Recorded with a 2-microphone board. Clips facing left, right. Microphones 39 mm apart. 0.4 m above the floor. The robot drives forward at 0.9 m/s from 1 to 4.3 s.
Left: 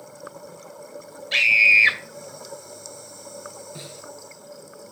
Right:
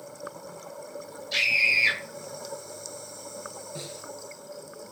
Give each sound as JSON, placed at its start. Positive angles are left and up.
{"t": 1.3, "sound": "a scream", "side_deg": 50, "distance_m": 2.0}
{"t": 3.8, "sound": "a snare drum", "side_deg": 20, "distance_m": 2.5}